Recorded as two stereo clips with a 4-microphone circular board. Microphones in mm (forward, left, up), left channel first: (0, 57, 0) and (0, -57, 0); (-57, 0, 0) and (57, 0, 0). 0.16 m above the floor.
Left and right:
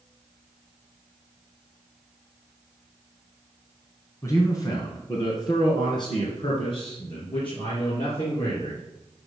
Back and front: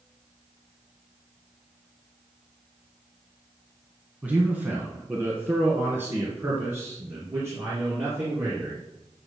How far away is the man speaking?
About 1.8 m.